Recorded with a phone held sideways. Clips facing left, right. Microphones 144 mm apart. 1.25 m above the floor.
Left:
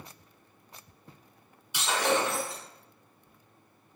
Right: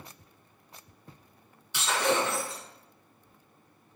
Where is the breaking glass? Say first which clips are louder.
Even; 15° left (ahead or behind), 1.4 m.